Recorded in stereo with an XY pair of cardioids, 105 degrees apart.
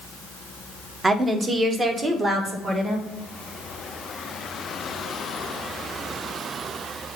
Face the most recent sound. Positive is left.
turn(degrees=-35)